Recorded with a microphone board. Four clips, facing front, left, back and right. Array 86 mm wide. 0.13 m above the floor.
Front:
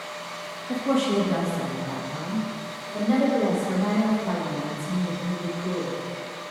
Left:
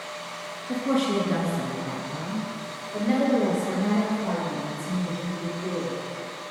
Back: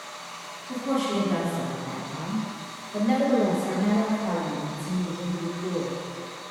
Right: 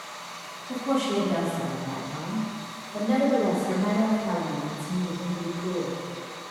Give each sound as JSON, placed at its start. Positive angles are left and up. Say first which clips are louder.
{"t": 0.7, "sound": "a woman speaking", "louder": "left 1 dB, front 3 dB", "azimuth_deg": 60, "distance_m": 2.0}